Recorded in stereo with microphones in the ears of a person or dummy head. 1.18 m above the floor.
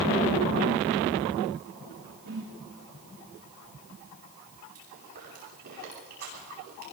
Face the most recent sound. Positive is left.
turn(degrees=-45)  # may be behind; listen again after turning